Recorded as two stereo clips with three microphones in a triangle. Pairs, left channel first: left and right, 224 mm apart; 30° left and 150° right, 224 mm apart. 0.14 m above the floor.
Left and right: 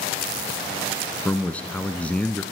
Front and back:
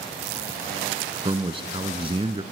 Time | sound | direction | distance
1.2 | a man speaking | 170° left | 1.2 m